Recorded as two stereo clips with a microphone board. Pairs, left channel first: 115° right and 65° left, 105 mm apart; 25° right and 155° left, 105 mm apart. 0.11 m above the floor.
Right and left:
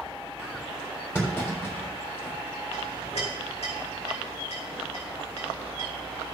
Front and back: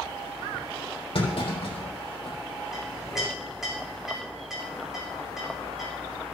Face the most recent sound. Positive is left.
turn(degrees=-115)